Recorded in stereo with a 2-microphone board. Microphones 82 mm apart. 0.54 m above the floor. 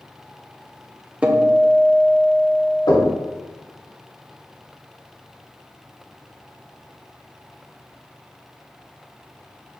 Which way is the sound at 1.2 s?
15° right (ahead or behind).